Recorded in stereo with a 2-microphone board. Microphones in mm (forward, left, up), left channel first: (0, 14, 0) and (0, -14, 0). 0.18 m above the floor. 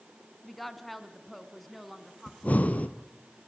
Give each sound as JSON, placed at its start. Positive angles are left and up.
{"t": 0.4, "sound": "a woman speaking", "side_deg": 5, "distance_m": 2.0}
{"t": 2.3, "sound": "breathing", "side_deg": 60, "distance_m": 1.5}